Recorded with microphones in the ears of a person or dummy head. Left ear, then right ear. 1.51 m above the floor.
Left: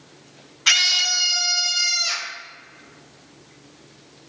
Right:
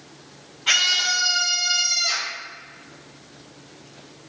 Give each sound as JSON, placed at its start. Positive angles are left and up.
{"t": 0.7, "sound": "a scream", "side_deg": 55, "distance_m": 0.9}